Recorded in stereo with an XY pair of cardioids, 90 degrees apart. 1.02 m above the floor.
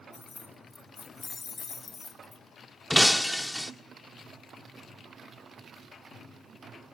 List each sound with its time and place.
0.1 s keys jangling: 40° left, 2.5 m
2.9 s breaking glass: 5° left, 1.4 m